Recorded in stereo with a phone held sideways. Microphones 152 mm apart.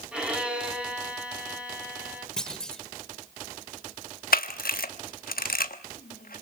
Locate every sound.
0.1 s a violin: 5° right (ahead or behind), 3 m
2.4 s a clunk: 5° left (ahead or behind), 1.3 m
4.3 s a camera shutter: 75° left (ahead or behind), 1.2 m